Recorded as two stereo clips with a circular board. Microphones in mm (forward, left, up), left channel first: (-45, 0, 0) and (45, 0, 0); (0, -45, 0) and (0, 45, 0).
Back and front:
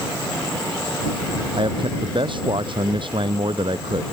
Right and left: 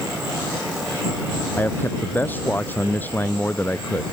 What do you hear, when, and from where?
1.6 s a man speaking: 20° right